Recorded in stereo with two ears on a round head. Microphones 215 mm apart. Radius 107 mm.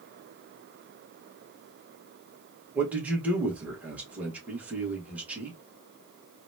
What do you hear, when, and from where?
2.8 s a man speaking: 5° right (ahead or behind), 1.4 m